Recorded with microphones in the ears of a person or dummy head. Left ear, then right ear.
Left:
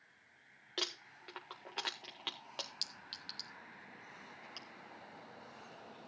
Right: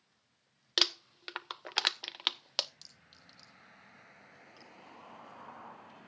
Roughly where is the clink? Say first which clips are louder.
Left 13 dB; left.